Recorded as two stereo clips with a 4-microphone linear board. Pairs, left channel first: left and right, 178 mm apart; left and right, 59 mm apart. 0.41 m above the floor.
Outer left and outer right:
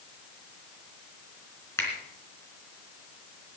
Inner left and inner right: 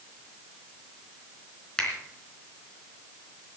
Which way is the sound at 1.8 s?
15° left (ahead or behind).